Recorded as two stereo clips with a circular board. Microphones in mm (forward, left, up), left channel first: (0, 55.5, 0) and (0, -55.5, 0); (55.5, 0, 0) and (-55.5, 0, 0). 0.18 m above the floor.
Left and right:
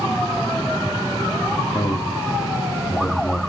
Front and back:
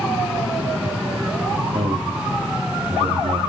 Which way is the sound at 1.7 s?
150° left.